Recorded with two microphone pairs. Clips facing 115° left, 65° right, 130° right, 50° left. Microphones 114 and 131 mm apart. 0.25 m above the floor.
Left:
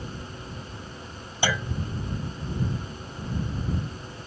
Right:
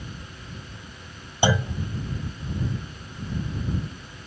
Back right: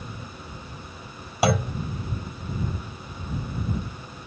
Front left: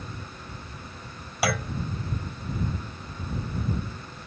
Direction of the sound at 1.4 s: 100° right.